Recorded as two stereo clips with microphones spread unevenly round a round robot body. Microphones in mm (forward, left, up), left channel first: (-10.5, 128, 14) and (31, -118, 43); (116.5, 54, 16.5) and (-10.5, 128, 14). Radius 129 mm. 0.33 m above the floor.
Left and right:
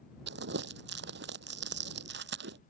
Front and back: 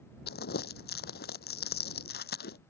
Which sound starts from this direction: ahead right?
Crumpling, at 0.3 s.